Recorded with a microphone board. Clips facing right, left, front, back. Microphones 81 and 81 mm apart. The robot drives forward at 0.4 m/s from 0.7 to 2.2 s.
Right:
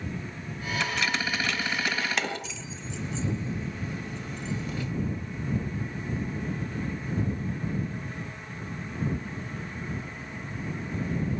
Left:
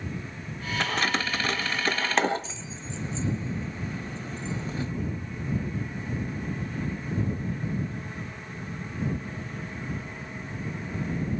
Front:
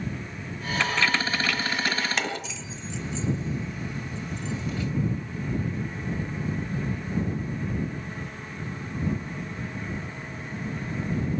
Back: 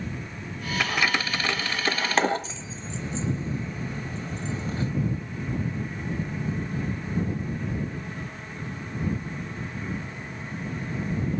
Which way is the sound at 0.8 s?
105° left.